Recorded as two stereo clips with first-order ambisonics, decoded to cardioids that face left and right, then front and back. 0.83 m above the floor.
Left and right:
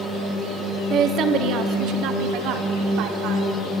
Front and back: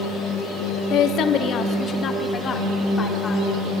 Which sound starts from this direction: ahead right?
A woman speaking, at 0.9 s.